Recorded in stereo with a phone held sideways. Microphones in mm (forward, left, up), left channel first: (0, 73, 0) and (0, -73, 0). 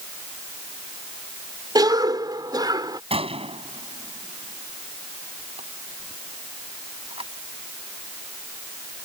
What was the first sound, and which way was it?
A cough, 25° right (ahead or behind).